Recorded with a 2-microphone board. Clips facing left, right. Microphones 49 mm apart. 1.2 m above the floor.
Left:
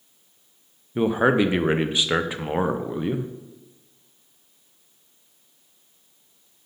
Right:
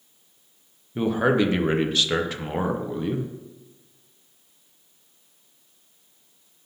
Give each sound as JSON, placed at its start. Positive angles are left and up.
{"t": 0.9, "sound": "a man speaking", "side_deg": 15, "distance_m": 0.5}